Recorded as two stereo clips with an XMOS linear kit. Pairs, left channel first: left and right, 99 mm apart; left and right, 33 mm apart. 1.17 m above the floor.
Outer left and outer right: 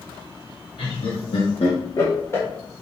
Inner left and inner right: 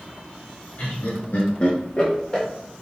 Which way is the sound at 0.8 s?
55° left (ahead or behind).